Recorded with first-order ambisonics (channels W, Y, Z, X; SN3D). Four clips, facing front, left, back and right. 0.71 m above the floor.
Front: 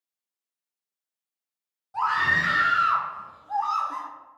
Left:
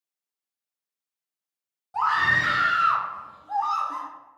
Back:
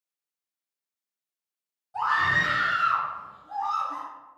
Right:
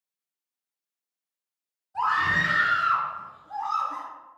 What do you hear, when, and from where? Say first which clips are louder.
1.9 s a scream: left 2 dB, front 1 dB; 75° left, 1.8 m; by 4.1 s 45° left, 0.6 m